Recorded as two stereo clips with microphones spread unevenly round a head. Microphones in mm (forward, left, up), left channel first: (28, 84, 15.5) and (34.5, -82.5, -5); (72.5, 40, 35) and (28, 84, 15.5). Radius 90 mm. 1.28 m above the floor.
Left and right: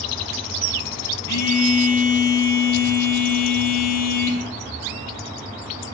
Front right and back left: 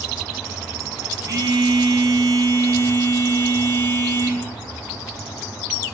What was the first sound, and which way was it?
A phone buzzing, 100° left.